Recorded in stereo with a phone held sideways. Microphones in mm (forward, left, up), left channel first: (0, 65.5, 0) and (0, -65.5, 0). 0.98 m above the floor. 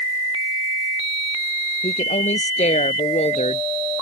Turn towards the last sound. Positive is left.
turn(degrees=60)  # may be behind; listen again after turning